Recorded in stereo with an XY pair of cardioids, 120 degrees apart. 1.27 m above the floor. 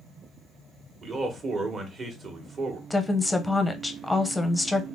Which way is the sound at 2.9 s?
5° left.